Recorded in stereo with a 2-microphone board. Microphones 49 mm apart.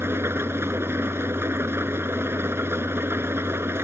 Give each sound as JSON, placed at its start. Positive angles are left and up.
{"t": 0.0, "sound": "an engine running", "side_deg": -55}